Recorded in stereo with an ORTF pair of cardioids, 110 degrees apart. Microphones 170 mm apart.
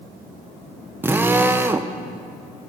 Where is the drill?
10° right, 0.8 m.